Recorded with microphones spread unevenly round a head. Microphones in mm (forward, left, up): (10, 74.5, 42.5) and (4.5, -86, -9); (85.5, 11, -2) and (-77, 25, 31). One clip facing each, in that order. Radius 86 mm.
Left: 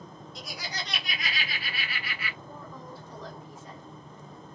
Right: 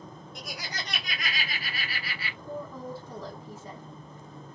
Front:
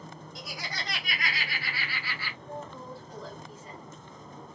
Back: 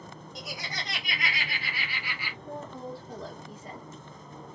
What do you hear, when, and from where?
0.3 s laughter: 110° right, 1.8 m; by 2.4 s 100° right, 0.8 m
2.5 s a woman speaking: 125° right, 1.1 m